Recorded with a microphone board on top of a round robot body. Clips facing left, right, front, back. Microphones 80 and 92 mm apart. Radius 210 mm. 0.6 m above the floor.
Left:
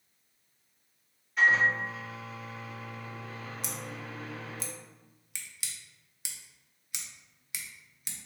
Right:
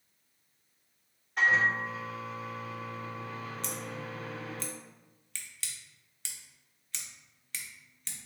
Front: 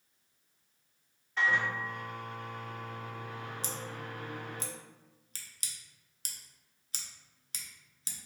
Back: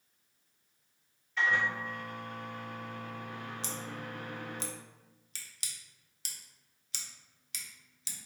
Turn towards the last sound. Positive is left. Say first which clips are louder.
# right 2 dB, even
turn(degrees=15)